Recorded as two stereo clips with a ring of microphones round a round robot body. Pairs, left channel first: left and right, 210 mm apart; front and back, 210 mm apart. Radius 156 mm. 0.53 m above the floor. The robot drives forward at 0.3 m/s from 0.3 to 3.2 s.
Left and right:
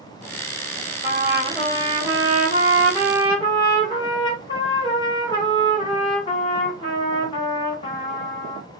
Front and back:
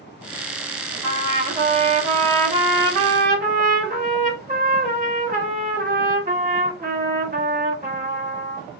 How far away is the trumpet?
About 1.6 m.